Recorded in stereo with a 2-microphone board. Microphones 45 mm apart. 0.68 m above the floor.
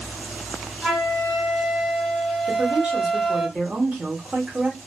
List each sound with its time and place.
0.8 s a flute: centre (ahead or behind), 1.7 m
2.5 s a woman speaking: 25° right (ahead or behind), 1.1 m